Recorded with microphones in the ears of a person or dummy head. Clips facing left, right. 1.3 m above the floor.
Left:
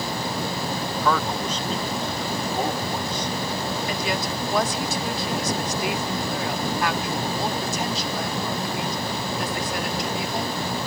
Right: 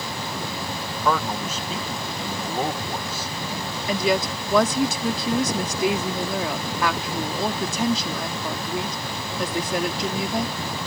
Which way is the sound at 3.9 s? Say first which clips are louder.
Right 4 dB; 75° right (ahead or behind).